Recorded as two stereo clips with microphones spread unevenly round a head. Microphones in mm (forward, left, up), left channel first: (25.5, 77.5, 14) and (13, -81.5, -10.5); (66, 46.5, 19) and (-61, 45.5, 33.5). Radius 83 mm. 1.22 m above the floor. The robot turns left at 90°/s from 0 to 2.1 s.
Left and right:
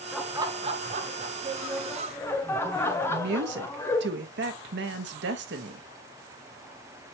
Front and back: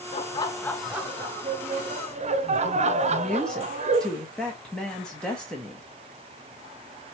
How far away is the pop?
I don't hear a pop.